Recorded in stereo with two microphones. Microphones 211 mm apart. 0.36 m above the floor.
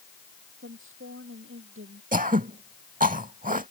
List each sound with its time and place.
0.6 s a woman speaking: 75° right (ahead or behind); by 2.0 s 80° right
2.1 s throat clearing: 40° right (ahead or behind)